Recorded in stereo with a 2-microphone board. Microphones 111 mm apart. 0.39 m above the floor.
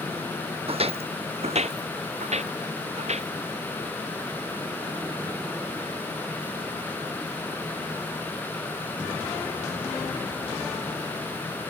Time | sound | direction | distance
0.7 | footsteps | 55° right (ahead or behind) | ?